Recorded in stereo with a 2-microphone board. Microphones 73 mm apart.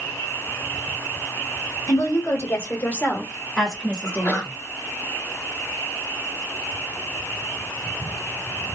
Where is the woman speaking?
45° left (ahead or behind), 2 m; by 4.5 s 30° right (ahead or behind), 1.4 m.